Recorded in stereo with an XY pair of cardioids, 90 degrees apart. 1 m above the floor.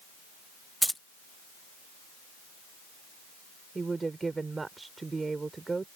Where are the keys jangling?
5° left.